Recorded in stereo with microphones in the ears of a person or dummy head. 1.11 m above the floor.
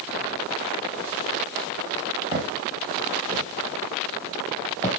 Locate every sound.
2.3 s footsteps: 30° right (ahead or behind), 4 m; by 4.9 s 15° left (ahead or behind), 2 m